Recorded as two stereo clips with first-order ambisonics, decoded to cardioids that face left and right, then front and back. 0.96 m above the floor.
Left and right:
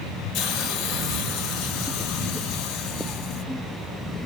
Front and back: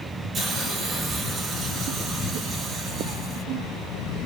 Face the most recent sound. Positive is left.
turn(degrees=115)